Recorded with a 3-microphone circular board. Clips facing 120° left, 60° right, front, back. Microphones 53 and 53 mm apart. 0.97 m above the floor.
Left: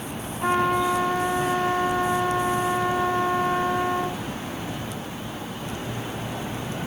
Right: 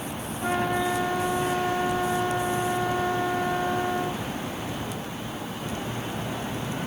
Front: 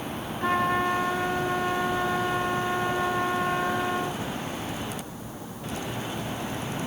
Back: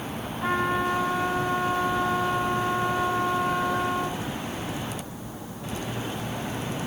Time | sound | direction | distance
0.4 | a trumpet | 95° left | 2 m